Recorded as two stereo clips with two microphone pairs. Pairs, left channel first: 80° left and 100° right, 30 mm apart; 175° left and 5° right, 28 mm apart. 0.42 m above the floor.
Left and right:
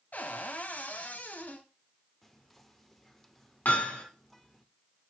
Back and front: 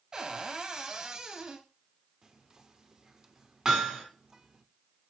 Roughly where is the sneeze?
No sneeze in this recording.